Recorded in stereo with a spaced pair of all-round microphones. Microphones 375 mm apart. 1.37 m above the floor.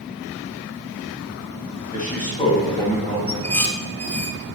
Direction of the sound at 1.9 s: 20° left (ahead or behind).